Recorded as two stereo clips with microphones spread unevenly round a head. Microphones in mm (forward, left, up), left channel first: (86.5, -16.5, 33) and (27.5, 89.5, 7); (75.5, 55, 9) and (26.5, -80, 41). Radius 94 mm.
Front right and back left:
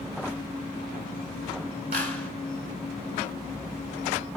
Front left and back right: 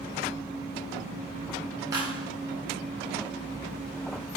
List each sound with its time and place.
1.9 s a clap: 175° left, 9 m